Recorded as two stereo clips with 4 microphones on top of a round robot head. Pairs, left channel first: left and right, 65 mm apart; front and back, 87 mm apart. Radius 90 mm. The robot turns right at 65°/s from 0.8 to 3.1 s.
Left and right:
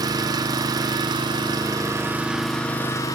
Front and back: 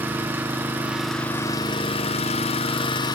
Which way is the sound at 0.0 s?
105° right.